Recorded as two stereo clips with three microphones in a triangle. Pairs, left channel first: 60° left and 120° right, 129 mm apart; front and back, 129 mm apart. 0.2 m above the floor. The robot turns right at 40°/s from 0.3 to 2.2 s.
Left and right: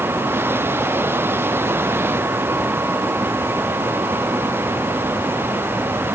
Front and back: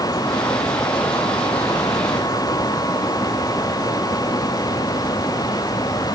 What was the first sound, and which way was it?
Only background noise.